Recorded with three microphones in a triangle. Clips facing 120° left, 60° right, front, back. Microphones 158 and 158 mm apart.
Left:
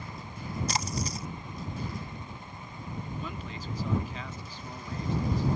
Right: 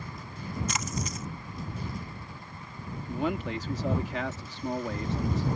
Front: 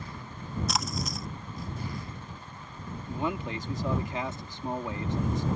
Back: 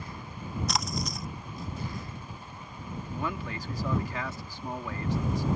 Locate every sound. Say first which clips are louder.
0.7 s a splash: left 1 dB, even; 90° left
3.1 s a man speaking: right 9 dB, front 4 dB; 65° right